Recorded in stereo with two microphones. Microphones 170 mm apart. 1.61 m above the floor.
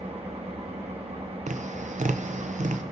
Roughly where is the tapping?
Right.